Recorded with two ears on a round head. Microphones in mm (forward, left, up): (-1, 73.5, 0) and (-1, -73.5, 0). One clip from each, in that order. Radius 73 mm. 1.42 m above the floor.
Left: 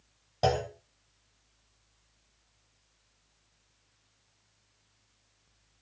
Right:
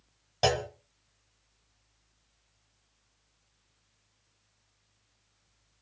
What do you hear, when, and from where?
0.4 s a clunk: 60° right (ahead or behind), 2.0 m